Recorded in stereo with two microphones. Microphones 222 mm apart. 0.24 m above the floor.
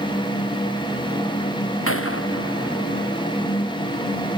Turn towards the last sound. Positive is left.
turn(degrees=85)